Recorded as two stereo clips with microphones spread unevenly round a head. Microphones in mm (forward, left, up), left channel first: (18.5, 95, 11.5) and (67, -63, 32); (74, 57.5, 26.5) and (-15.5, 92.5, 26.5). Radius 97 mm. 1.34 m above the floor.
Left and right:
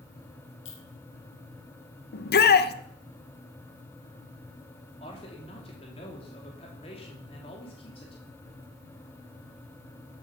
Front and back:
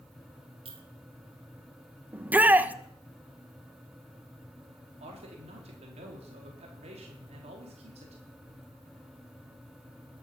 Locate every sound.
0.7 s a clink: 140° left, 2 m
2.1 s a shout: 85° left, 1.3 m
5.0 s a man speaking: 170° left, 3.5 m